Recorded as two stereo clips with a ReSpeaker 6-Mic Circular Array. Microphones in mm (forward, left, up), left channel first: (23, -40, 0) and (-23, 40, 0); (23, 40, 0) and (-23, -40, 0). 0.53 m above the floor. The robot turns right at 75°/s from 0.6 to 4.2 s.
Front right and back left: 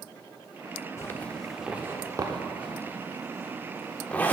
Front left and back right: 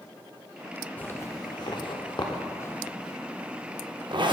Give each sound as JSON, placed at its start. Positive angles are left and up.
{"t": 1.0, "sound": "a zipper", "azimuth_deg": -10, "distance_m": 0.6}